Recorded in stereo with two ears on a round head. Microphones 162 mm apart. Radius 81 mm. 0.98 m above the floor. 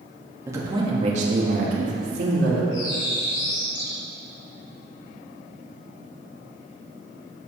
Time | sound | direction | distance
0.5 | a man speaking | 15° right (ahead or behind) | 2 m
2.7 | a bird | 45° left (ahead or behind) | 3 m